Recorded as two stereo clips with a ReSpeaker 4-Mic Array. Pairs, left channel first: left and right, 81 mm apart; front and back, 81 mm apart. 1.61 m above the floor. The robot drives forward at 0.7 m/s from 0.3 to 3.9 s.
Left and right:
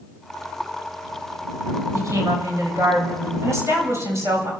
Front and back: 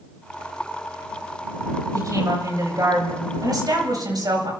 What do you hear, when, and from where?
1.9 s a woman speaking: 140° right, 7 m; by 4.5 s 145° right, 8 m